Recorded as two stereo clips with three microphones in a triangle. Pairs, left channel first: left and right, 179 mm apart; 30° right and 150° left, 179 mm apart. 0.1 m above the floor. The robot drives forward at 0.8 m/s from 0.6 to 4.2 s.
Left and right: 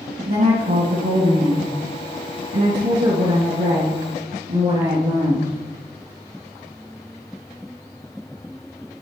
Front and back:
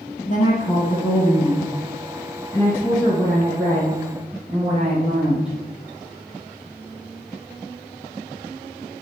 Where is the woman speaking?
70° right, 3 m; by 5.5 s 125° right, 3.5 m.